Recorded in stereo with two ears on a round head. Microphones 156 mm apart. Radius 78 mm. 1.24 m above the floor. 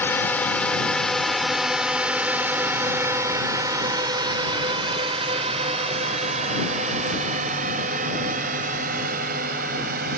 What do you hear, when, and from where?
0.0 s a drone: 10° left (ahead or behind); by 10.2 s 55° right (ahead or behind)